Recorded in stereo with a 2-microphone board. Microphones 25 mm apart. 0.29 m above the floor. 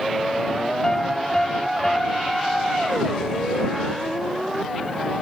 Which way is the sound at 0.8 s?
20° left (ahead or behind).